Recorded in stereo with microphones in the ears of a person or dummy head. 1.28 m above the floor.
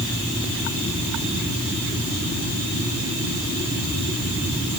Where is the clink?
No clink in this recording.